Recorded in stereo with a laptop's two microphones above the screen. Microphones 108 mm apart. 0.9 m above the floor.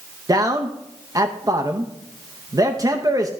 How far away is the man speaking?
About 0.8 m.